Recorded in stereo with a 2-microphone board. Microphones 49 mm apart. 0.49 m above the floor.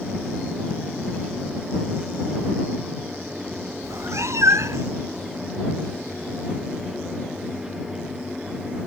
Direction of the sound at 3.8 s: 75° right (ahead or behind).